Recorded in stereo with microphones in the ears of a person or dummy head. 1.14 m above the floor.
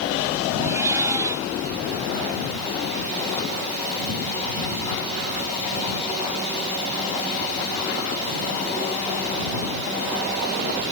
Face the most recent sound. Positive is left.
turn(degrees=-20)  # may be behind; listen again after turning